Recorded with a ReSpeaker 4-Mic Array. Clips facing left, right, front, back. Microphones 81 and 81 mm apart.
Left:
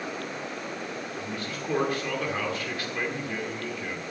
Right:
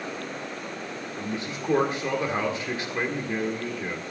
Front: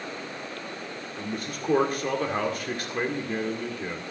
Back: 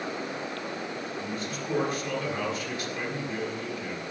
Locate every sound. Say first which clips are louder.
1.2 s a man speaking: right 2 dB, even; 25° right, 1.9 m